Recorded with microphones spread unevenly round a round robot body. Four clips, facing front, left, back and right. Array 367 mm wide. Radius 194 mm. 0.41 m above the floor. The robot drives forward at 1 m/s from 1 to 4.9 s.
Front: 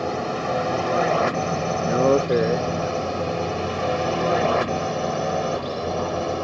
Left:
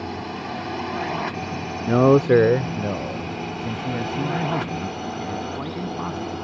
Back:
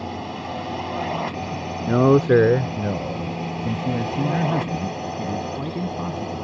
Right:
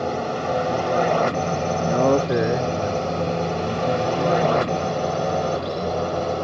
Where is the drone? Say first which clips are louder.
Right 6 dB, front 5 dB; 65° right; by 6.4 s 70° right.